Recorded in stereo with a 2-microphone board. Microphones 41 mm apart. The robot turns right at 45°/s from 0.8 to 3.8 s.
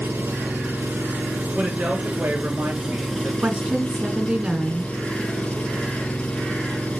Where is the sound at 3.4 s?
40° right (ahead or behind), 1.9 m; by 4.9 s 25° right (ahead or behind), 1.9 m.